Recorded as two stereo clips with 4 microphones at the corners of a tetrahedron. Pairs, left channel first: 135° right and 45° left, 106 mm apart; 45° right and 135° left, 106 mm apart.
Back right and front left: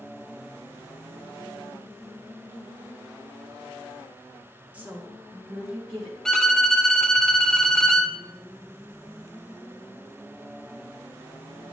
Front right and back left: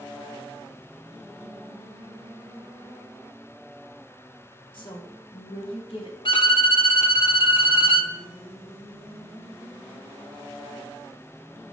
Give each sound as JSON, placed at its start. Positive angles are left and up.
{"t": 4.7, "sound": "a woman speaking", "azimuth_deg": -25, "distance_m": 1.9}
{"t": 6.2, "sound": "a violin", "azimuth_deg": -50, "distance_m": 0.6}